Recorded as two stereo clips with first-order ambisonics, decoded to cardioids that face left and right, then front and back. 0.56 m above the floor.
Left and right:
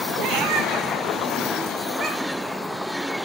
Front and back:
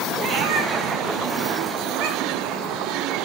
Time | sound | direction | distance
0.2 | a cat meowing | 125° right | 1.0 m